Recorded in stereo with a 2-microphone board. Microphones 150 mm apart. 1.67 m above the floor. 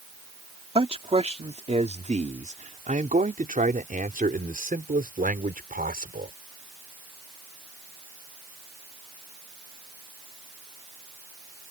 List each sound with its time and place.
0.8 s a man speaking: 40° right (ahead or behind); by 6.3 s 75° right (ahead or behind)